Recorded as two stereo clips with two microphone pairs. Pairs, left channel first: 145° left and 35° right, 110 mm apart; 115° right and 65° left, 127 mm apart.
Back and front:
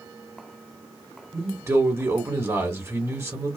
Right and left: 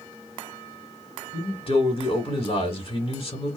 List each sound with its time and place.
1.3 s a man speaking: 90° right, 1.6 m